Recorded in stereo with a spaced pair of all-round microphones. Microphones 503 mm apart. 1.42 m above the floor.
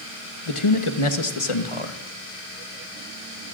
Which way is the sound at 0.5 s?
80° left.